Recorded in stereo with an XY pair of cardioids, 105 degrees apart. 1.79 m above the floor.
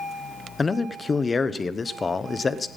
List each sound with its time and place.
0.6 s a man speaking: 30° left, 1.0 m